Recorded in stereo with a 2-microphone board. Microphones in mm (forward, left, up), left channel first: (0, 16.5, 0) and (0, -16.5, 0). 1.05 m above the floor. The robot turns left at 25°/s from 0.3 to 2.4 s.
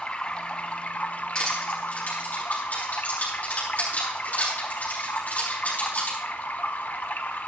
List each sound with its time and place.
0.0 s running water: 150° left, 1.1 m; by 7.5 s 95° left, 1.1 m
1.4 s crushing: 20° left (ahead or behind), 9 m; by 6.2 s 45° left (ahead or behind), 9 m